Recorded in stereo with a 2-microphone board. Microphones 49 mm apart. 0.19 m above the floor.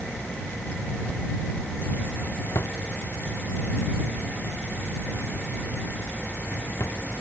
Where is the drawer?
80° left.